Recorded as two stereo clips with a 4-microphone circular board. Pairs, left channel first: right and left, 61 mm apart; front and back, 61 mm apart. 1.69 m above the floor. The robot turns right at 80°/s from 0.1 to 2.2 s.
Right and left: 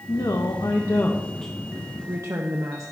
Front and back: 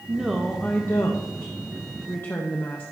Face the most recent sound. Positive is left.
turn(degrees=55)